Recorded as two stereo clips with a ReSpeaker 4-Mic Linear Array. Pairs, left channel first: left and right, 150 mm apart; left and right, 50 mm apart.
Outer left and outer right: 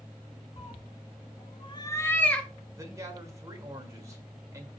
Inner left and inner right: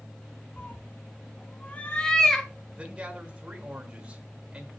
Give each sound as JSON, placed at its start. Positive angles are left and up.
{"t": 0.6, "sound": "a cat meowing", "side_deg": 40, "distance_m": 1.0}
{"t": 2.8, "sound": "a man speaking", "side_deg": -20, "distance_m": 1.6}